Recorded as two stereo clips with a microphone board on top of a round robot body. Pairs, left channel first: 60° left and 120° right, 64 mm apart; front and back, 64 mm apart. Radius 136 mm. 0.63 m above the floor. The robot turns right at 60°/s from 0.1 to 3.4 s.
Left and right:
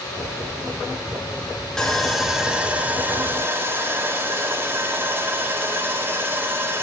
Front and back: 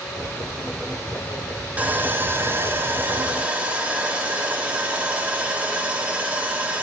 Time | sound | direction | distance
1.8 | sawing | 135° left | 1.2 m